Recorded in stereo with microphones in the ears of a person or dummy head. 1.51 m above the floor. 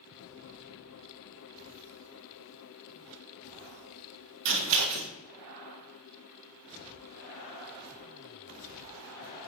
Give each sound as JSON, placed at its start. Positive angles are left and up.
{"t": 4.5, "sound": "scissors", "side_deg": -70, "distance_m": 1.6}